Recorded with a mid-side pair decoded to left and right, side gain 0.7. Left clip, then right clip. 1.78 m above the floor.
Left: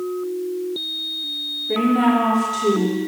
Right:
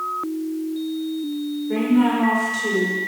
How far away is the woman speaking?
About 5 m.